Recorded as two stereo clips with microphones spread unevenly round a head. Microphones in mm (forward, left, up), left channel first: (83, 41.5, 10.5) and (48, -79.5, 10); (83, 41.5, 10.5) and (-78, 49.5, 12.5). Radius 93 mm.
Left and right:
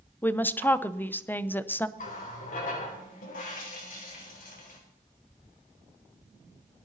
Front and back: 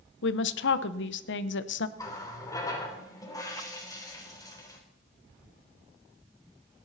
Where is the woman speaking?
Straight ahead, 0.9 m.